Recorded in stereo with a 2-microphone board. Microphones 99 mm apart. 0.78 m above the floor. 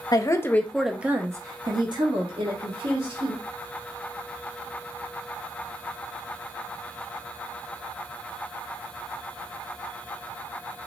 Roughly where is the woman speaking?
Left.